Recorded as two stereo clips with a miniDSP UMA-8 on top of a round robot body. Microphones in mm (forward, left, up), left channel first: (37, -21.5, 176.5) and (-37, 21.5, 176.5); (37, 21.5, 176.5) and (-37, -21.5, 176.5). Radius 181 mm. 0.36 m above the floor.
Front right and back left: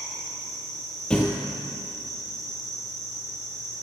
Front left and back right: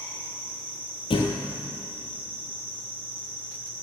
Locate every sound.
0.0 s an insect: 160° right, 3 m
1.1 s a thud: 50° left, 0.8 m